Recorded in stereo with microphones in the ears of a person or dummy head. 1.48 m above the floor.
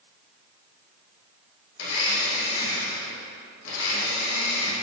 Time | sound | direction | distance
1.8 | a blender | 75° left (ahead or behind) | 1.4 m